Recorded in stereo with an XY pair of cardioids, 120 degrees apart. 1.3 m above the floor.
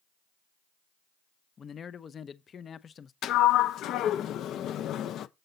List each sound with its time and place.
1.6 s a man speaking: 40° left, 0.5 m
3.2 s a sliding door: 65° left, 0.6 m